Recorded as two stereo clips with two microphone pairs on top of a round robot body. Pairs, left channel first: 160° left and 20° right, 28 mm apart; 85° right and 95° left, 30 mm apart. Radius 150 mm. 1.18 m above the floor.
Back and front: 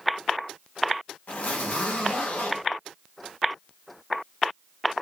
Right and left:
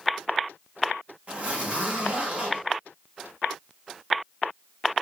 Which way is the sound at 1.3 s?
140° left.